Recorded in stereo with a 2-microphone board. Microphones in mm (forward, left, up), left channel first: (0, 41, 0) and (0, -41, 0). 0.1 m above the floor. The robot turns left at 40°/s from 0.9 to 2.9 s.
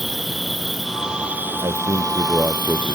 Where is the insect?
Straight ahead; by 2.9 s 80° right.